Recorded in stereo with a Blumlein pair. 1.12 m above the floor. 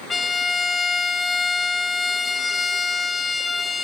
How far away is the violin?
About 0.9 m.